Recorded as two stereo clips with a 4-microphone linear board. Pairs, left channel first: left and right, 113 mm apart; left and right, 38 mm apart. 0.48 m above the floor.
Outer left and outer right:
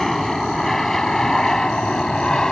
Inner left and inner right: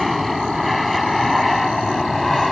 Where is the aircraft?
Centre (ahead or behind); by 2.5 s 5° left (ahead or behind).